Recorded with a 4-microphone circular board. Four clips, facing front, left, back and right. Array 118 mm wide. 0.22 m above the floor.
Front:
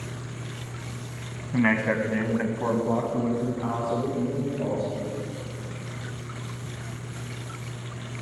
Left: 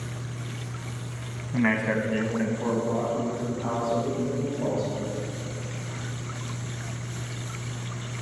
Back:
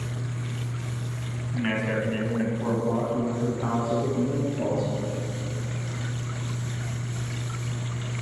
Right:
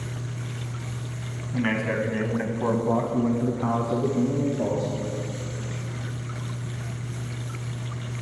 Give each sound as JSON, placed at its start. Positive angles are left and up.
{"t": 1.5, "sound": "a man speaking", "azimuth_deg": 20, "distance_m": 1.4}